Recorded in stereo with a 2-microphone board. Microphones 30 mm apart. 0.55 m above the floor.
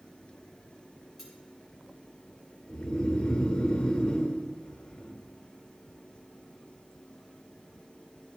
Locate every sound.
1.2 s cutlery clinking: 10° right (ahead or behind), 4.5 m
2.7 s snoring: 30° left (ahead or behind), 2.5 m